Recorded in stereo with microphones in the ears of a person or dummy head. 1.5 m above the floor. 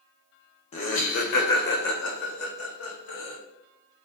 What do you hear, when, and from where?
0.7 s laughter: 35° left (ahead or behind), 0.9 m; by 3.4 s 80° left, 2 m